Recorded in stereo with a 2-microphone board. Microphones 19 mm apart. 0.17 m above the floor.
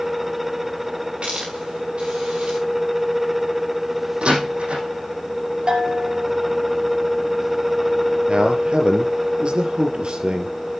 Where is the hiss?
80° right, 6.5 m.